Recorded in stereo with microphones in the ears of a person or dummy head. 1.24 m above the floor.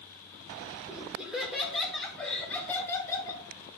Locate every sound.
0.9 s laughter: 10° right (ahead or behind), 3 m; by 3.4 s 20° left (ahead or behind), 3 m